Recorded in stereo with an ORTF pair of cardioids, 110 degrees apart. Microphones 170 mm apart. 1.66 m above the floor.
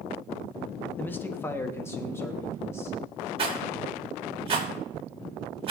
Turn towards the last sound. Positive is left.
turn(degrees=-35)